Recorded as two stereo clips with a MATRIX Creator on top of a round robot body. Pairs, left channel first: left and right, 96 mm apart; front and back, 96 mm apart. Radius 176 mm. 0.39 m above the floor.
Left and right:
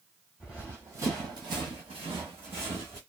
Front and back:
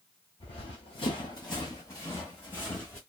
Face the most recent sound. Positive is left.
turn(degrees=-80)